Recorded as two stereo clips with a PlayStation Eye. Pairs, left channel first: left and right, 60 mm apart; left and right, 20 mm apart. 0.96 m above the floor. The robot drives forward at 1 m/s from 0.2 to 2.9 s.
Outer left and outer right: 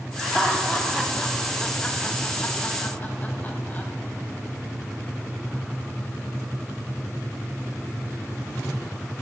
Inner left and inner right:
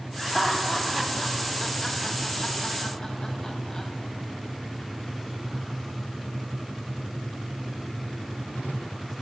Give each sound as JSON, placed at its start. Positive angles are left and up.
{"t": 0.2, "sound": "laughter", "side_deg": 10, "distance_m": 2.5}